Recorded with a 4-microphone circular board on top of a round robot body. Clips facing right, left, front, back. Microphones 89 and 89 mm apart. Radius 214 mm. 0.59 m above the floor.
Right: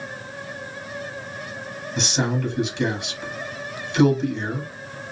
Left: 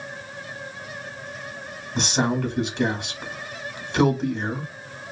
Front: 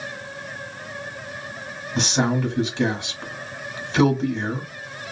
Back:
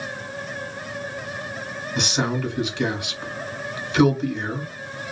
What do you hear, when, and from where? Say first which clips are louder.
1.9 s a man speaking: left 1 dB, front 3 dB; 50° left, 1.6 m